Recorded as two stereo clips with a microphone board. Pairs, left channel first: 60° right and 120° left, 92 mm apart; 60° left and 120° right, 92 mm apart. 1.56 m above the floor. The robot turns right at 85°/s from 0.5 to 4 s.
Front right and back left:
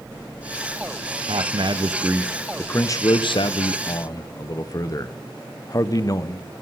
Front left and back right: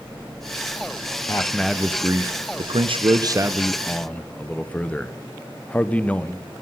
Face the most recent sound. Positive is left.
turn(degrees=-15)